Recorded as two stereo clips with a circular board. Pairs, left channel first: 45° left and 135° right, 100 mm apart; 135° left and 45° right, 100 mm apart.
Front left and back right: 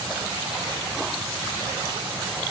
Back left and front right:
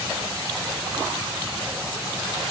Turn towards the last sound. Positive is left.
No sound to turn to.